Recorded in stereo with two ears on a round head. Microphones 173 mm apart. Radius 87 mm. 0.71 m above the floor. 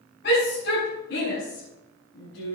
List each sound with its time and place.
0.2 s a shout: 50° left (ahead or behind), 6 m; by 2.5 s 35° left (ahead or behind), 6.5 m